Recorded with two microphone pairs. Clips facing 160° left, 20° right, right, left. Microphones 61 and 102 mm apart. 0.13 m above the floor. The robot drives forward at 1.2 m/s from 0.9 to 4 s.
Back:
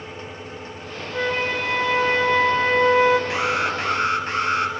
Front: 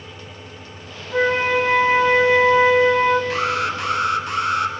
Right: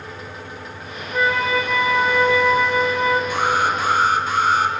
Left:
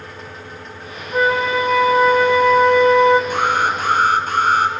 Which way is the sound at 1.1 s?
30° left.